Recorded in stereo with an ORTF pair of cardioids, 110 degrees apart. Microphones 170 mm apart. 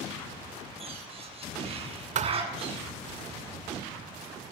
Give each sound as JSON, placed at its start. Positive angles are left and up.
{"t": 0.8, "sound": "a bird", "azimuth_deg": -35, "distance_m": 9.5}
{"t": 2.1, "sound": "a thud", "azimuth_deg": -50, "distance_m": 2.0}